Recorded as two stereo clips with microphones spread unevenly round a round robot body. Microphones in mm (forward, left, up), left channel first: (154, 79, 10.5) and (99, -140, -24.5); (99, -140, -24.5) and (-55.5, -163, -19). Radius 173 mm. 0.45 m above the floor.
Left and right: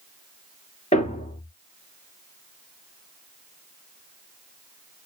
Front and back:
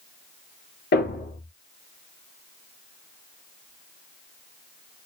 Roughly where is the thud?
Ahead.